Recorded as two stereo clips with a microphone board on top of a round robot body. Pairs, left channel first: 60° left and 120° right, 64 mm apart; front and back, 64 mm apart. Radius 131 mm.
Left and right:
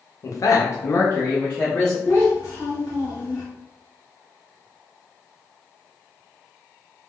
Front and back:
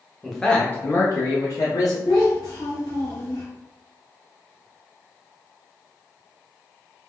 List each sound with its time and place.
0.2 s a man speaking: 90° left, 0.7 m; by 1.9 s 15° right, 1.0 m
2.0 s a child speaking: 5° left, 1.2 m